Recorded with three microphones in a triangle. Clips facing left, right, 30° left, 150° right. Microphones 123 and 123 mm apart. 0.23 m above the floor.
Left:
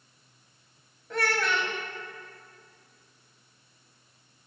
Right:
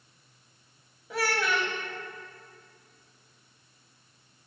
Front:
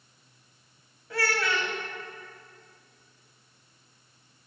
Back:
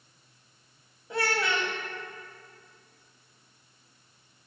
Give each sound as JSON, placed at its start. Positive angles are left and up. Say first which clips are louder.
{"t": 1.1, "sound": "a child speaking", "louder": "even, even", "azimuth_deg": -160, "distance_m": 0.6}